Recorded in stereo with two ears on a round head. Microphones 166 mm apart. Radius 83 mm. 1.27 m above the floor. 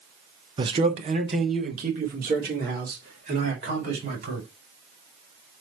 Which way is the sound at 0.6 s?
25° right (ahead or behind).